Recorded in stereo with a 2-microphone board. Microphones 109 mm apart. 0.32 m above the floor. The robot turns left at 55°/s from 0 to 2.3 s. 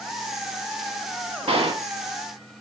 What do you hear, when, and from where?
1.5 s a gunshot: 75° right (ahead or behind), 0.5 m; by 1.9 s 55° right (ahead or behind), 0.5 m